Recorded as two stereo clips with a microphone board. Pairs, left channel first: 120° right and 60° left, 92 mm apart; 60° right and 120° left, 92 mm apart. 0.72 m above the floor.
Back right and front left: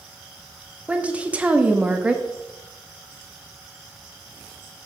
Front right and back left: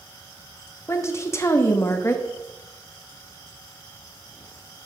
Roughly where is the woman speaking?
Ahead.